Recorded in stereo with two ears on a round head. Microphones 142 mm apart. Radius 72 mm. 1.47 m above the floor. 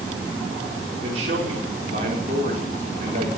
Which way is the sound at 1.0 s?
45° right (ahead or behind).